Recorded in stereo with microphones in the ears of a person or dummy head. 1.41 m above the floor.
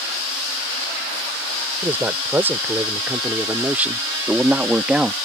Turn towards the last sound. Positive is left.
turn(degrees=-5)  # may be behind; listen again after turning